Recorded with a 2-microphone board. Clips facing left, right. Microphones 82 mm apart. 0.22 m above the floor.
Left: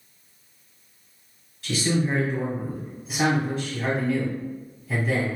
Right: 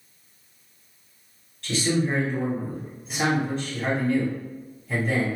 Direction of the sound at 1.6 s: 5° left (ahead or behind).